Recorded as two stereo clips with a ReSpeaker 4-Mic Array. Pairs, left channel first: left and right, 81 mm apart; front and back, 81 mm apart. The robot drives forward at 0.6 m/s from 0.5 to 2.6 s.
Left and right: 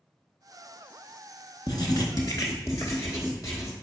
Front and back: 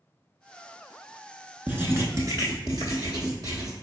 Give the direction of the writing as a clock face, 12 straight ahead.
8 o'clock.